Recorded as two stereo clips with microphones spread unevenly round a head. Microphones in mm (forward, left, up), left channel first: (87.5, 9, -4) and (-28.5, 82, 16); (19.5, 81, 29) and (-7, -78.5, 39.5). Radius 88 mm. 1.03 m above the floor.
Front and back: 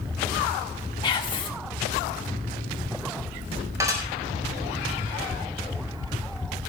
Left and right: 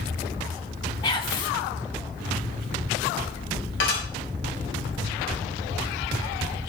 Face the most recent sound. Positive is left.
turn(degrees=80)